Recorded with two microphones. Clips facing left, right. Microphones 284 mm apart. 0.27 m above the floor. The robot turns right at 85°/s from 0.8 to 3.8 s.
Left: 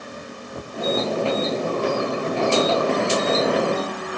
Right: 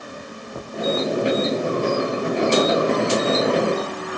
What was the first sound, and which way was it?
Only background noise.